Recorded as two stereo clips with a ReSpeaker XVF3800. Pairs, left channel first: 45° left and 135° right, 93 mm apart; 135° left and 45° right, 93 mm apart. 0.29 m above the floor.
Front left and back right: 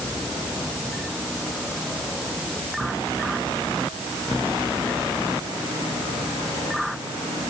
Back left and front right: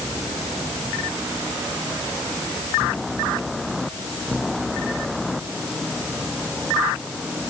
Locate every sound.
Only background noise.